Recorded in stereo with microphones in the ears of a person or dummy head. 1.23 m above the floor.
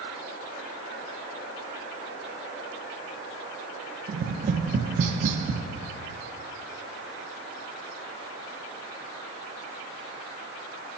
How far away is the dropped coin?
I don't hear a dropped coin.